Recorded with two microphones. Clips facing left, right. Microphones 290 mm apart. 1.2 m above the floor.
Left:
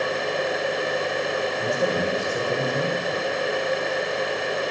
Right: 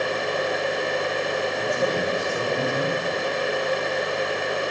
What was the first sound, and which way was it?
A man speaking, 10° left (ahead or behind).